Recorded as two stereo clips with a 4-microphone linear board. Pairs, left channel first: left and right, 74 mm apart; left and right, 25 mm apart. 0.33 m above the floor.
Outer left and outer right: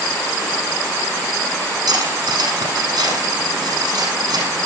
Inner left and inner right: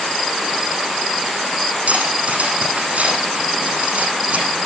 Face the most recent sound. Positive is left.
turn(degrees=-70)  # may be behind; listen again after turning